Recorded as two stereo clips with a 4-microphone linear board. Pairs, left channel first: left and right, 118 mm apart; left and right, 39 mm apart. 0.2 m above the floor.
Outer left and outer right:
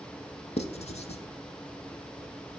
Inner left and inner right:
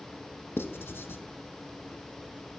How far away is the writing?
About 0.6 m.